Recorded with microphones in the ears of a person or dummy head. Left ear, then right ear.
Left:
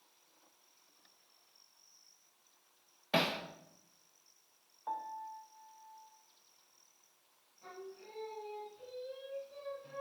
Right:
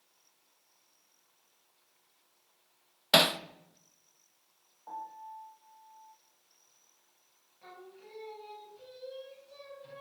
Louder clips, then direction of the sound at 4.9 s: Left 2 dB; 75° left (ahead or behind).